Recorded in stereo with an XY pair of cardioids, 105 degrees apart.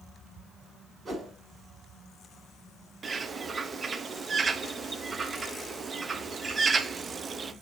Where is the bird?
35° right, 0.6 m.